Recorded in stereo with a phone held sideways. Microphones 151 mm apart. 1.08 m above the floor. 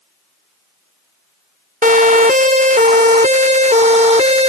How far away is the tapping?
No tapping in this recording.